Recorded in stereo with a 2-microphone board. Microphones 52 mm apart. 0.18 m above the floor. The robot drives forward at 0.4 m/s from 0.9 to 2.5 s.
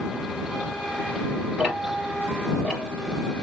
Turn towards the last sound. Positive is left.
turn(degrees=-5)  # may be behind; listen again after turning